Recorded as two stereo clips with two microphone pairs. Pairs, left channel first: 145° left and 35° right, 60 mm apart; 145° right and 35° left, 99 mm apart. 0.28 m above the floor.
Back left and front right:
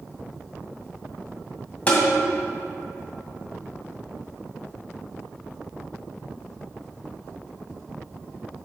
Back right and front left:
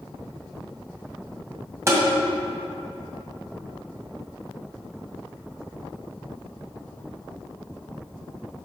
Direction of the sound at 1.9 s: 85° left.